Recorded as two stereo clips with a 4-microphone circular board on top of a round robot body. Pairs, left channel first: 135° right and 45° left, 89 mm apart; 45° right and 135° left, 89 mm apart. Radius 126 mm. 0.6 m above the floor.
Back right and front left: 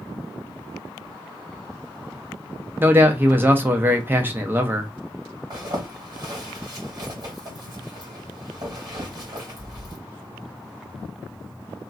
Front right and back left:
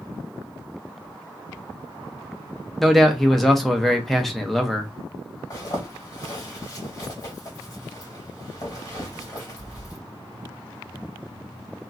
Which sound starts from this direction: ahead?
A zipper, at 5.5 s.